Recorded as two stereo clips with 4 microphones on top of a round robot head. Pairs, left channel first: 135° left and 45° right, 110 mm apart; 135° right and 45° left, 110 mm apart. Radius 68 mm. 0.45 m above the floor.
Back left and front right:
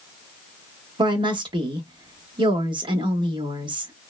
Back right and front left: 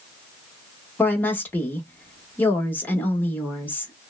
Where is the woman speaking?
65° right, 1.4 m.